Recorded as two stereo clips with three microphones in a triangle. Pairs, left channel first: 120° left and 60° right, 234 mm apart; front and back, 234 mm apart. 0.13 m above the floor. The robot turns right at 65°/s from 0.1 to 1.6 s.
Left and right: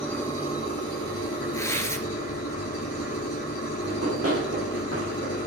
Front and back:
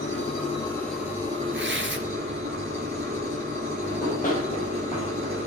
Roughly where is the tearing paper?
Behind.